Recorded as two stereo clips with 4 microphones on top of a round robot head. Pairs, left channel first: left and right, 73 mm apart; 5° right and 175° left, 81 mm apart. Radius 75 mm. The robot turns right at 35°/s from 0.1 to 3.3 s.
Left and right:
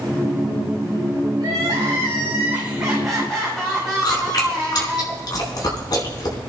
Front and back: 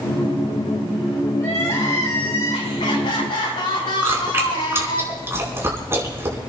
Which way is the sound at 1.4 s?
60° right.